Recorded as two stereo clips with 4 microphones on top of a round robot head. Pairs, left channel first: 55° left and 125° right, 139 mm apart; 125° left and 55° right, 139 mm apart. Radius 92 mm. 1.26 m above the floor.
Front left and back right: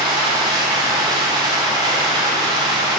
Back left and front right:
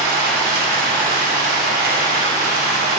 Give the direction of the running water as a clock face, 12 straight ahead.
2 o'clock.